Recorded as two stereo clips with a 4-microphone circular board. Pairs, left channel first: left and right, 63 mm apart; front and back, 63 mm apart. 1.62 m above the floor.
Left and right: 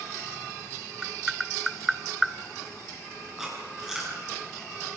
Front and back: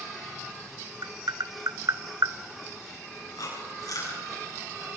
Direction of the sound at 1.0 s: 175° right.